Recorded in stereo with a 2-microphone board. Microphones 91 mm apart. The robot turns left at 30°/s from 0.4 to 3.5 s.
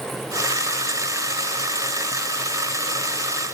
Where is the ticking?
I don't hear ticking.